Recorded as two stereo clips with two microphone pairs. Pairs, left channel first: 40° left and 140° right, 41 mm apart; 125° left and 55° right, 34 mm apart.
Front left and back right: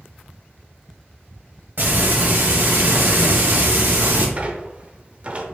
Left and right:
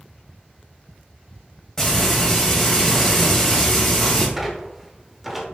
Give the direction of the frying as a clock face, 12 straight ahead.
6 o'clock.